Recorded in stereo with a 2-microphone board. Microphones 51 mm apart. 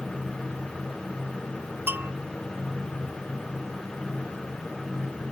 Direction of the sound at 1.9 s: 45° right (ahead or behind).